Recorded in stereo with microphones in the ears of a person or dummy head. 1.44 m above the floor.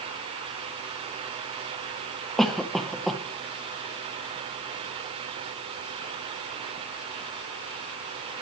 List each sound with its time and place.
2.4 s a cough: centre (ahead or behind), 0.7 m